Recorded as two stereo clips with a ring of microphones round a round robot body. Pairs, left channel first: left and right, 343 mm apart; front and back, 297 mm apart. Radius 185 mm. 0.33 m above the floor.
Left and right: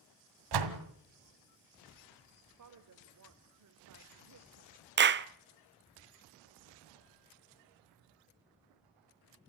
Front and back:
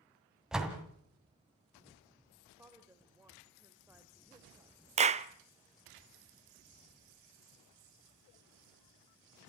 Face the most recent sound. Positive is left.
turn(degrees=-125)